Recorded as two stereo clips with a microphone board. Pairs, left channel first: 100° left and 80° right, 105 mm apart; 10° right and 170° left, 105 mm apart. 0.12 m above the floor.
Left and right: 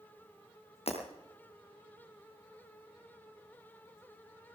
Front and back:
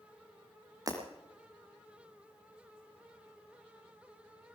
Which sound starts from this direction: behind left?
Breaking glass, at 0.9 s.